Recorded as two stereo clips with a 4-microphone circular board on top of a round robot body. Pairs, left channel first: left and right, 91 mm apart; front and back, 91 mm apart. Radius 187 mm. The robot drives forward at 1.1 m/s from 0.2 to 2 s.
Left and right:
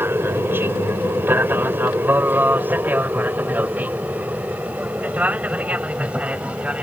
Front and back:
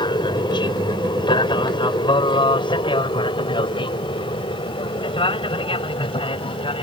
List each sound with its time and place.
0.0 s an aircraft: 25° right; by 6.8 s 15° right